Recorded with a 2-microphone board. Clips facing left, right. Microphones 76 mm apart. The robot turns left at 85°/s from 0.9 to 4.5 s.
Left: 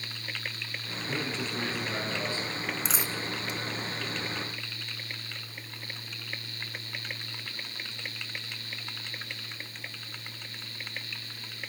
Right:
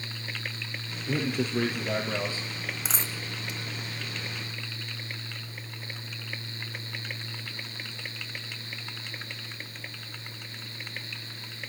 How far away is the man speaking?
About 4 m.